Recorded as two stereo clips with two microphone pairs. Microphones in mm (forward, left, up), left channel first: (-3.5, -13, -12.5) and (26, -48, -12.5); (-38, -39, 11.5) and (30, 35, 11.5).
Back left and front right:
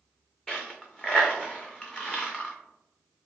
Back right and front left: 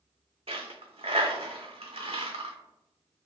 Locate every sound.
0.5 s a dropped coin: 55° left, 0.6 m